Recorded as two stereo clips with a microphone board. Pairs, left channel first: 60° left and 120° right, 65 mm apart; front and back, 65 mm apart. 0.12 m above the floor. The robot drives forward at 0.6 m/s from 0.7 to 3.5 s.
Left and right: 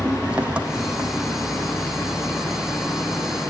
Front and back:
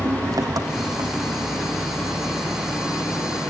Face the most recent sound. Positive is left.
turn(degrees=170)